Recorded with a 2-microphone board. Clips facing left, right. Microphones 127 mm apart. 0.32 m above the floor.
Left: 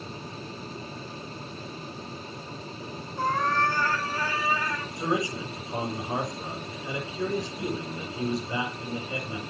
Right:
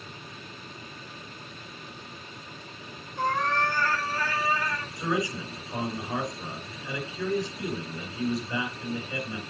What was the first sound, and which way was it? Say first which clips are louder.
A cat meowing: left 1 dB; 5° left (ahead or behind).